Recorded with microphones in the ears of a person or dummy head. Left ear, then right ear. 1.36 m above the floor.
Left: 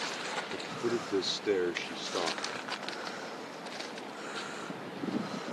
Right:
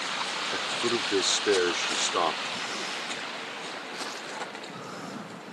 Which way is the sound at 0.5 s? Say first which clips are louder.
Right 8 dB; 35° right (ahead or behind).